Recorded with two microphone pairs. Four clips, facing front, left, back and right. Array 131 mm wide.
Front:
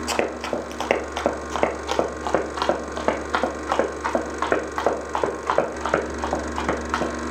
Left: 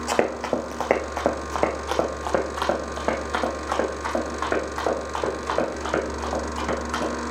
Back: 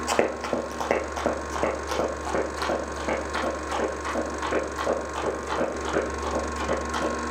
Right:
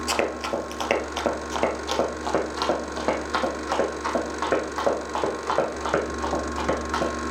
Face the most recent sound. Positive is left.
turn(degrees=5)